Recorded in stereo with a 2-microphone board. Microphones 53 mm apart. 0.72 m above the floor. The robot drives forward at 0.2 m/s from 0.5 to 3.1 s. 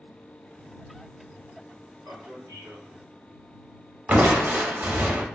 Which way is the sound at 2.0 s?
60° right (ahead or behind).